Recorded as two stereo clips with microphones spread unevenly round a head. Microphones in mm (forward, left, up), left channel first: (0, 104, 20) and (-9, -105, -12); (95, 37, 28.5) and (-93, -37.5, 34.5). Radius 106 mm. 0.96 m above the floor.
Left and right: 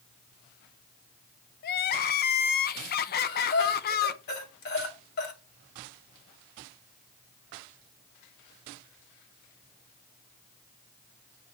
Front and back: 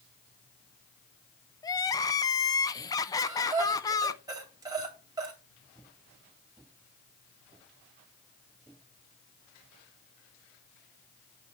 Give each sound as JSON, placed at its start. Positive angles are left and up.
{"t": 1.6, "sound": "crying", "azimuth_deg": 75, "distance_m": 0.5}
{"t": 3.2, "sound": "breathing", "azimuth_deg": 130, "distance_m": 2.0}